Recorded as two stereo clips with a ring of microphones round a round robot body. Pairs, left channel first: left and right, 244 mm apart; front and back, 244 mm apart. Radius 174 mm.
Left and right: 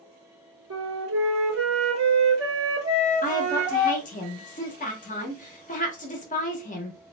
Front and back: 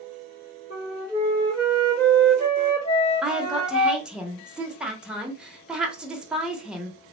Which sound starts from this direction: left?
A woman speaking, at 3.2 s.